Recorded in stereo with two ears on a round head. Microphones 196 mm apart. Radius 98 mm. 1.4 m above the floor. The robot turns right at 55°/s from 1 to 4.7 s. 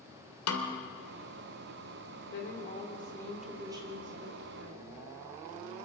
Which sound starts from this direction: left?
A snare drum, at 0.5 s.